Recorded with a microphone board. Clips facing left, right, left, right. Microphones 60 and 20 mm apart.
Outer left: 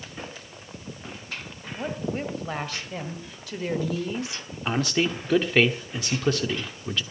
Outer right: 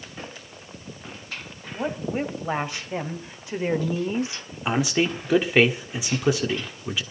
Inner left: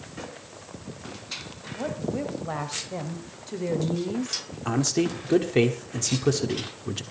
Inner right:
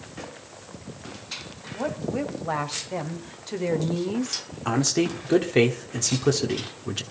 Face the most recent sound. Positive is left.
turn(degrees=-10)  # may be behind; listen again after turning